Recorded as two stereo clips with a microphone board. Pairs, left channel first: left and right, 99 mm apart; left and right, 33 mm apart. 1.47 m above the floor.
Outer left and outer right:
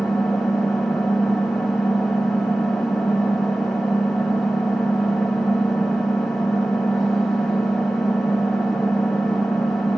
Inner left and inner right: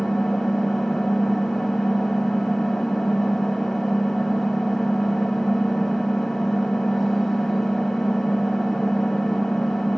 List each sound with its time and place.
0.0 s an engine running: centre (ahead or behind), 0.9 m